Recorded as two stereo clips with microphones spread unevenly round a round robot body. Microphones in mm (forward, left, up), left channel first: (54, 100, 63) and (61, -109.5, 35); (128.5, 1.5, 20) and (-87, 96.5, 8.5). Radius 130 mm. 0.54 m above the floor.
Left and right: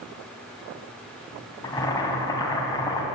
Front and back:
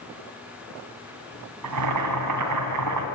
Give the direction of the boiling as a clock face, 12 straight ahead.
6 o'clock.